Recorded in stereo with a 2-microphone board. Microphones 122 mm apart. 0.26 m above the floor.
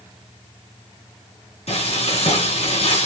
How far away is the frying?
About 2 m.